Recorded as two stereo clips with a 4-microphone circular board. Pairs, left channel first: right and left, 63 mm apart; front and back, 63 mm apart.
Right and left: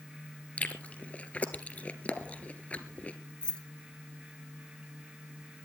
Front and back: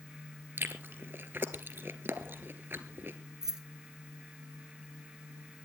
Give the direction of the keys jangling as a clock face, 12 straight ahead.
4 o'clock.